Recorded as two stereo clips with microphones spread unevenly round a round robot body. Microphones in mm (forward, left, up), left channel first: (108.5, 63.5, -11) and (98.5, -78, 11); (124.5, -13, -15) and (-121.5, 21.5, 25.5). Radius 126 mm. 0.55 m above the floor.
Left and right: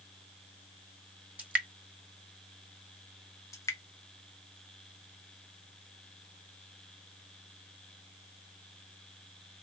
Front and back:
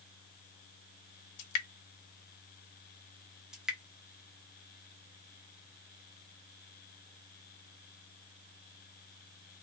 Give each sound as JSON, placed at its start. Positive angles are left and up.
{"t": 1.4, "sound": "dripping", "azimuth_deg": -10, "distance_m": 0.9}
{"t": 3.5, "sound": "dripping", "azimuth_deg": 70, "distance_m": 0.7}